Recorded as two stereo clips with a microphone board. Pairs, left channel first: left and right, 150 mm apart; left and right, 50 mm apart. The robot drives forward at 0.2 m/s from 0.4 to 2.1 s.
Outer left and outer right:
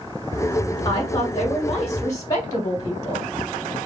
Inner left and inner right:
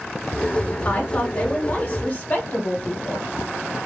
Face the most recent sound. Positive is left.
turn(degrees=25)  # may be behind; listen again after turning